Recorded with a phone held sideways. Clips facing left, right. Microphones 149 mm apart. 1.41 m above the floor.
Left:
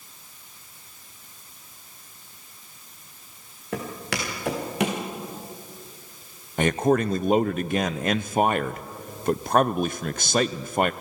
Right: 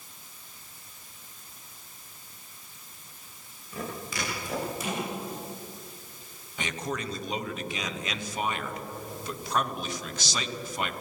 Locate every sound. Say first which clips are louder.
3.7 s footsteps: left 5 dB; 75° left (ahead or behind), 6 m
6.6 s a man speaking: left 13 dB; 55° left (ahead or behind), 0.6 m